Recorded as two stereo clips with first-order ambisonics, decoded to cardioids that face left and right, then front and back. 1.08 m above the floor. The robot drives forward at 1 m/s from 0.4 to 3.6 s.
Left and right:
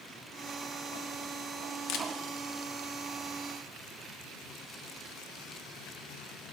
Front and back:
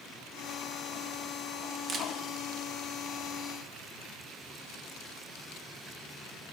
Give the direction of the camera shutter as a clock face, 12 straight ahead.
8 o'clock.